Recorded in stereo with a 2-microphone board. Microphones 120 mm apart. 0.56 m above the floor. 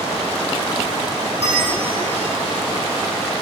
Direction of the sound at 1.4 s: 70° right (ahead or behind).